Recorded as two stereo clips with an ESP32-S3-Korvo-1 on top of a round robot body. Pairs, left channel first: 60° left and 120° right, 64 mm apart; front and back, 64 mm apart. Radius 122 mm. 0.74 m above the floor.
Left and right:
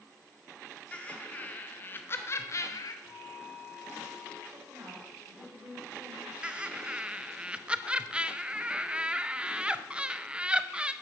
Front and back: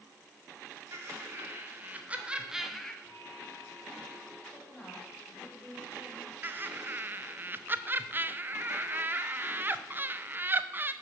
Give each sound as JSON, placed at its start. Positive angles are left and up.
{"t": 0.9, "sound": "laughter", "azimuth_deg": 130, "distance_m": 1.9}
{"t": 3.0, "sound": "a bell", "azimuth_deg": -145, "distance_m": 4.0}
{"t": 4.5, "sound": "a woman speaking", "azimuth_deg": -80, "distance_m": 3.5}
{"t": 6.4, "sound": "laughter", "azimuth_deg": 180, "distance_m": 0.5}